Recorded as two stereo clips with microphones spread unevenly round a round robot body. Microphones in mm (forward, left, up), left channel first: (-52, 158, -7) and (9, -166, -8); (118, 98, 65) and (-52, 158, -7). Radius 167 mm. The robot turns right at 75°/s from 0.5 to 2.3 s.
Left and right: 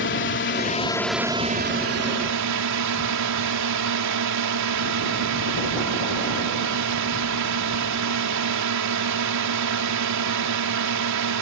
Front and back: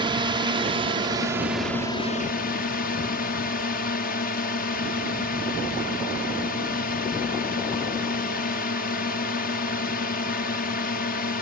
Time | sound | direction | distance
0.0 | a drone | 145° left | ?